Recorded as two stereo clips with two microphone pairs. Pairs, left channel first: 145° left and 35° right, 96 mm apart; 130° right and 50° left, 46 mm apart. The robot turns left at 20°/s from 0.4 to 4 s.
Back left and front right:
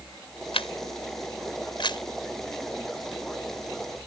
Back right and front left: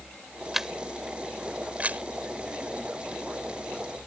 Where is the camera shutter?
135° left; by 2.0 s 105° left.